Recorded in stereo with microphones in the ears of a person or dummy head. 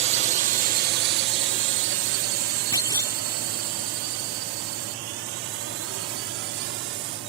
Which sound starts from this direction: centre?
A clunk, at 2.7 s.